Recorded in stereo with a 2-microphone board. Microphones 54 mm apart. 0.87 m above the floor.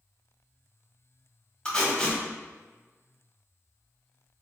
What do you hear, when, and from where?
1.6 s tape being pulled: 20° left (ahead or behind), 1.6 m